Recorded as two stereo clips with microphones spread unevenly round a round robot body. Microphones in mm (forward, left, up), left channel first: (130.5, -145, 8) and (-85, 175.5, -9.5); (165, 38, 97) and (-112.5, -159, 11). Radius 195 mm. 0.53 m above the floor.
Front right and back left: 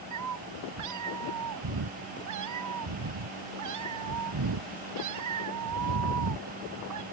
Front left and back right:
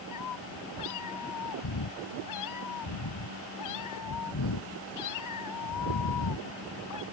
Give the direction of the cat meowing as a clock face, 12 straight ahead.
9 o'clock.